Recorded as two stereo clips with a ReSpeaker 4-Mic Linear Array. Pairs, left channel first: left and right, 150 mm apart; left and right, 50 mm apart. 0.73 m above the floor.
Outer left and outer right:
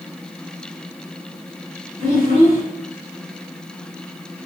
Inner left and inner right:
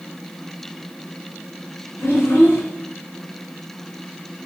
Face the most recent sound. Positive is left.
turn(degrees=75)  # may be behind; listen again after turning